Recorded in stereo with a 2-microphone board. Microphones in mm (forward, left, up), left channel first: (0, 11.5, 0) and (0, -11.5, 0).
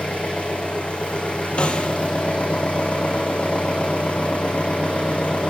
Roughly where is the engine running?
Left.